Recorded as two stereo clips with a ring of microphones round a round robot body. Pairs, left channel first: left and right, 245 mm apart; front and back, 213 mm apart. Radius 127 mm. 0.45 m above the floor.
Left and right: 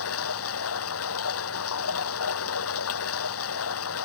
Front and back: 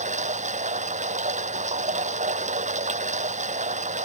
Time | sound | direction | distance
0.0 | running water | 125° left | ?